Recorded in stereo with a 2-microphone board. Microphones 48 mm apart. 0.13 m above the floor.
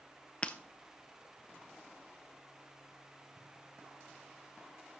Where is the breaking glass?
20° left (ahead or behind), 0.6 m.